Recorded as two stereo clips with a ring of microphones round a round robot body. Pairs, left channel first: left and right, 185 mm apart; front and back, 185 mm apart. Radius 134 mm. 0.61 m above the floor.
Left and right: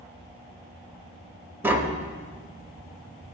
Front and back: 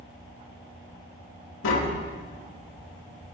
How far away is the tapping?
About 0.6 m.